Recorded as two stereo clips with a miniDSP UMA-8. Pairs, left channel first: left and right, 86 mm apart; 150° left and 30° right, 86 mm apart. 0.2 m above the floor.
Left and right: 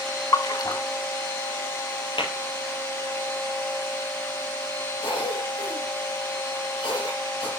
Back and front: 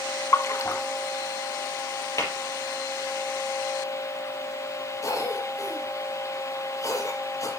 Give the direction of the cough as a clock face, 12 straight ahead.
9 o'clock.